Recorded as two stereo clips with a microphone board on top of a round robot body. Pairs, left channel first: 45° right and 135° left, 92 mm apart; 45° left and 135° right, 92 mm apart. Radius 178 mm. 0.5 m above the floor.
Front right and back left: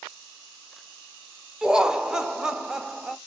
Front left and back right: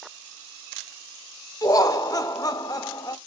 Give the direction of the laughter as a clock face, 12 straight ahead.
10 o'clock.